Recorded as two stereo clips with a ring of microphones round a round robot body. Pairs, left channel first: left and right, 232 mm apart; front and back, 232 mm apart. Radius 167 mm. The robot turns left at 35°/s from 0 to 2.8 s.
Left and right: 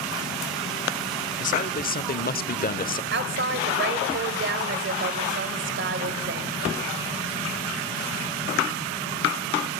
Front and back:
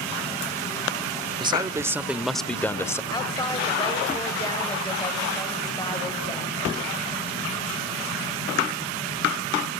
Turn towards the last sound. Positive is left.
turn(degrees=-75)